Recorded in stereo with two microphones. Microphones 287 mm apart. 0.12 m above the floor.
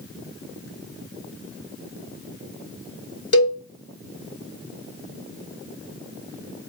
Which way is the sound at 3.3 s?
50° left (ahead or behind).